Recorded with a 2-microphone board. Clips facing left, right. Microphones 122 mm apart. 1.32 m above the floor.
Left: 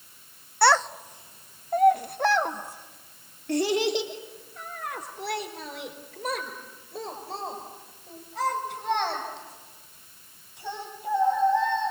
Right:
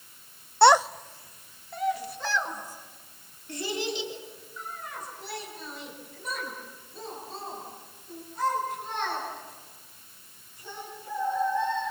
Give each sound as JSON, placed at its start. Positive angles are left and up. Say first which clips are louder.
{"t": 0.6, "sound": "a child speaking", "louder": "right 3 dB", "side_deg": -25, "distance_m": 0.6}